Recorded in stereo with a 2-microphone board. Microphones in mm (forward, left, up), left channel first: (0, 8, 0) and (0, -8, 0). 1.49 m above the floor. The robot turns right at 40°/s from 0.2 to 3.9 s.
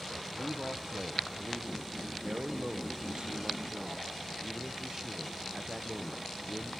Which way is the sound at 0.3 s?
170° right.